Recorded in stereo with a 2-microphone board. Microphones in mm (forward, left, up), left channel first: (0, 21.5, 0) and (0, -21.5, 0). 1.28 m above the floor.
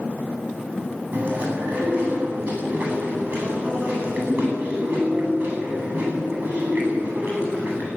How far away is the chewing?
About 10 m.